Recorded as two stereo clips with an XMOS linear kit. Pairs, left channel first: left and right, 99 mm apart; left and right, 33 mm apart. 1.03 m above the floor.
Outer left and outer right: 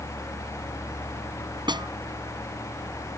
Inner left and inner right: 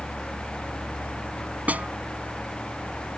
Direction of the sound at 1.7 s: 50° right (ahead or behind).